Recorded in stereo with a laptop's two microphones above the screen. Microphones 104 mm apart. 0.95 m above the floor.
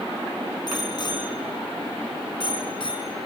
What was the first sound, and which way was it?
A bicycle bell, 45° left (ahead or behind).